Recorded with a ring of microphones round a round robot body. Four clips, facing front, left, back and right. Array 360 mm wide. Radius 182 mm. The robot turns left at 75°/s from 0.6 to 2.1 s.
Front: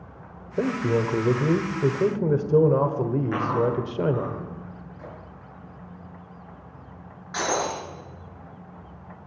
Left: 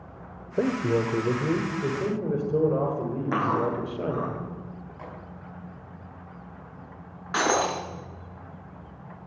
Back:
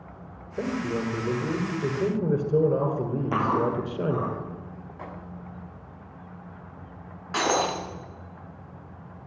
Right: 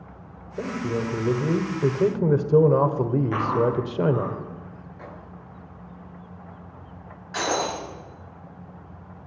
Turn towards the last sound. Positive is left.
turn(degrees=130)